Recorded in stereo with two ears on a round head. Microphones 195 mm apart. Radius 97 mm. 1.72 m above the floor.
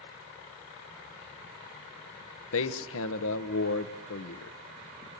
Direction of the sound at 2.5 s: 70° left (ahead or behind).